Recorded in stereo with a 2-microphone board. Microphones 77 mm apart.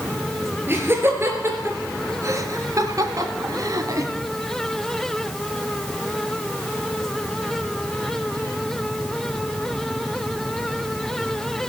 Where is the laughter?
30° right (ahead or behind), 4 m; by 4.1 s 50° right (ahead or behind), 1.5 m.